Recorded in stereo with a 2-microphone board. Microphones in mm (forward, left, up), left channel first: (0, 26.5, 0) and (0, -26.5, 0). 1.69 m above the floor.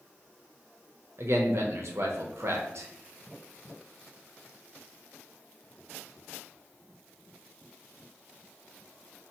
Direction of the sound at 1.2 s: 65° right (ahead or behind).